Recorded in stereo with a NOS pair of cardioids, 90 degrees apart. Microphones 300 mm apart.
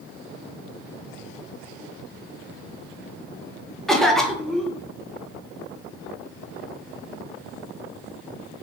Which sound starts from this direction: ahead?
A cough, at 3.9 s.